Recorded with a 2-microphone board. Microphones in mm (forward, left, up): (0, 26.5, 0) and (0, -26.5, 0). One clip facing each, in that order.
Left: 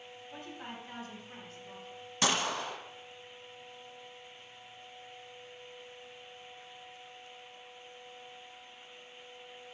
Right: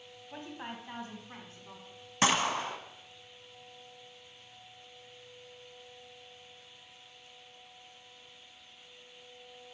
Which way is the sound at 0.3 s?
25° right (ahead or behind).